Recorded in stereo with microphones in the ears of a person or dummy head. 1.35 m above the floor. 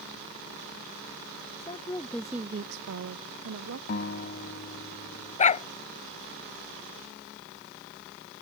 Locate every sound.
1.6 s a woman speaking: 30° left (ahead or behind); by 3.8 s 75° right (ahead or behind)
3.9 s a guitar: 50° left (ahead or behind)
5.4 s a dog barking: 35° left (ahead or behind)